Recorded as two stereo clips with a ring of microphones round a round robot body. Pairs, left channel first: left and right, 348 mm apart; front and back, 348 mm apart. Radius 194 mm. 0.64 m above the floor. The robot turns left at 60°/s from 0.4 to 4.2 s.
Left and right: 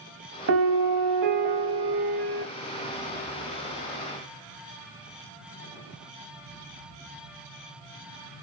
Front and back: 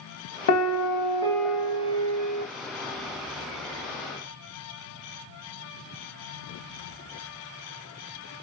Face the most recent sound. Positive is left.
turn(degrees=105)